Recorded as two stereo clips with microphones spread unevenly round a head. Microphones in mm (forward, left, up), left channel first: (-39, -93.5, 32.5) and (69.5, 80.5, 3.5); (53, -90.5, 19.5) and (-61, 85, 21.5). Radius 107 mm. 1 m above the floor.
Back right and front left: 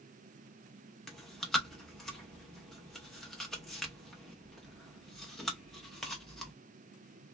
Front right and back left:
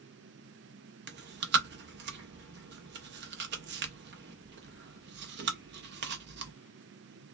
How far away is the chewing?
About 0.6 m.